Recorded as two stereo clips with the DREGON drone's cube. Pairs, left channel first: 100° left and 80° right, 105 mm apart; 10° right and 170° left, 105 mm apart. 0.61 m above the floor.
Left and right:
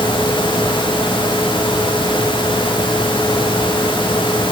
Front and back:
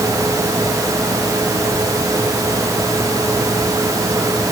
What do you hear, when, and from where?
Only background noise.